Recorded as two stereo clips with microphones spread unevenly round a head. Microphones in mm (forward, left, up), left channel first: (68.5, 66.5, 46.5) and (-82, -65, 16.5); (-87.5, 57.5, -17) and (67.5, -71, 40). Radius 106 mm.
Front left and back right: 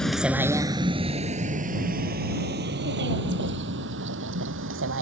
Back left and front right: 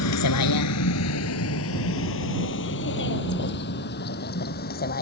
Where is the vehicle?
130° left; by 5.0 s 170° right.